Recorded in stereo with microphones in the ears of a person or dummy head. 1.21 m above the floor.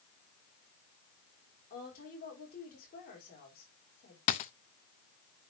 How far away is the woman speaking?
About 4 m.